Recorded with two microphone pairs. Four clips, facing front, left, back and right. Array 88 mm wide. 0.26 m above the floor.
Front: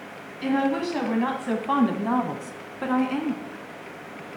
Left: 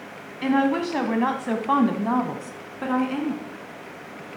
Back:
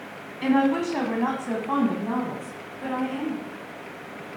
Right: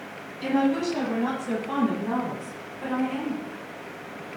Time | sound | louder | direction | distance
0.4 | a woman speaking | left 2 dB, back 2 dB | 125° left | 1.8 m